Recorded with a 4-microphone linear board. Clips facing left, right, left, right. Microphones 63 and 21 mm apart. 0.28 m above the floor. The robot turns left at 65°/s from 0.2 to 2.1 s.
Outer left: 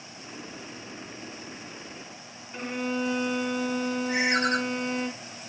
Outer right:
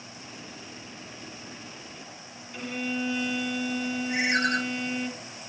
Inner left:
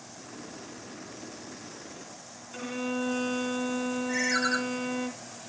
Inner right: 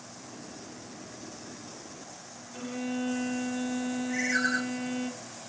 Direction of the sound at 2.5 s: 35° left (ahead or behind).